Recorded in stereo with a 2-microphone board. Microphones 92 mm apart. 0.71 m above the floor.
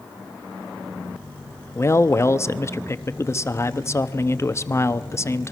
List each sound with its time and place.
1.8 s a man speaking: 30° left (ahead or behind), 0.8 m